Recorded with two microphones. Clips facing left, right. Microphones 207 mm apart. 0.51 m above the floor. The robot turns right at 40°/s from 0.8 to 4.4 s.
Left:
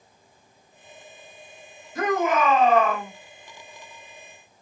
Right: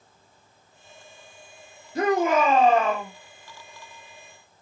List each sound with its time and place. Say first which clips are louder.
1.9 s a shout: right 2 dB; 95° right, 1.4 m; by 3.1 s 50° right, 1.4 m